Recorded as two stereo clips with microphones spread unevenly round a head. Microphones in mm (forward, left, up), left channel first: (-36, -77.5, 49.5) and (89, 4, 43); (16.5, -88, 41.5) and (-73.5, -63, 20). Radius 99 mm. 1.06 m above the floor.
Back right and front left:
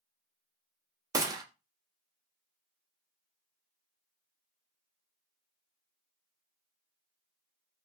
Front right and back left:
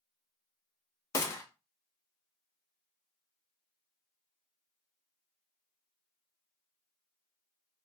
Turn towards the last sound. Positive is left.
turn(degrees=15)